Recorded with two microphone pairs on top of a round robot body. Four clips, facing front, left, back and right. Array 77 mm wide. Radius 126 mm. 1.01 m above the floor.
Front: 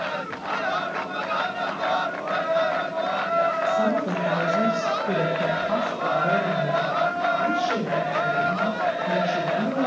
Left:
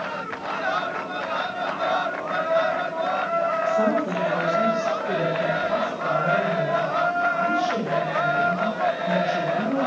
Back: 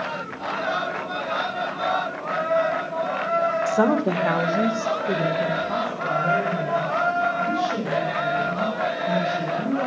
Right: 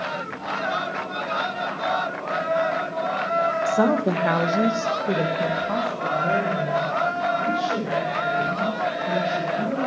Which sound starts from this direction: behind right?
A woman speaking, at 3.7 s.